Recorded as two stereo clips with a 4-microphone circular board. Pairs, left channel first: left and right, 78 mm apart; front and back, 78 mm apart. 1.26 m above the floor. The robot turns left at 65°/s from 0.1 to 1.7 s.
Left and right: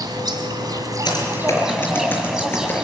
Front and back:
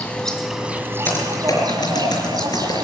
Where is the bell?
I don't hear a bell.